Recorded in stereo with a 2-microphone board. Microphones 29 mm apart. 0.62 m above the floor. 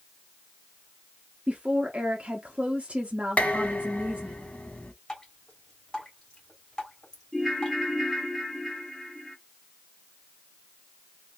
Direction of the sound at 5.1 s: 25° left (ahead or behind).